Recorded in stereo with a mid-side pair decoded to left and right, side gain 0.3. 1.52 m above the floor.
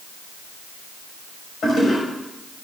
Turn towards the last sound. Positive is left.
turn(degrees=70)